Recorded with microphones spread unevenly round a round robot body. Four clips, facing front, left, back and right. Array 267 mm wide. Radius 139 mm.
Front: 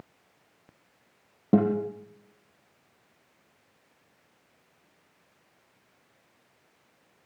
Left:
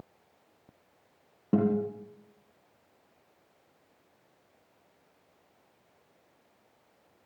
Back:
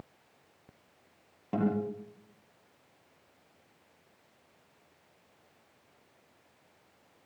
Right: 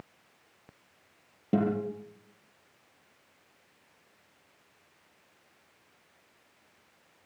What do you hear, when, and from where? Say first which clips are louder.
1.5 s a guitar: left 2 dB, front 7 dB; 5° left, 6 m